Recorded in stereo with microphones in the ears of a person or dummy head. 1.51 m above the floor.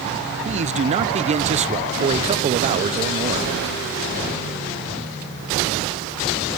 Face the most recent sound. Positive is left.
turn(degrees=-30)  # may be behind; listen again after turning